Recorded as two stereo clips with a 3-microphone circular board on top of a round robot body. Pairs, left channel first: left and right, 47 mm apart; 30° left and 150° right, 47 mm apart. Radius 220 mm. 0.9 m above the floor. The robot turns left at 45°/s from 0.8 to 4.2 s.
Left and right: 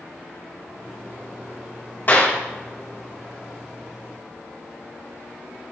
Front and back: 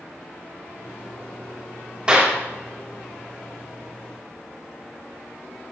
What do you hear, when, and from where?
2.1 s a clap: 145° left, 4 m; by 2.4 s 130° left, 4 m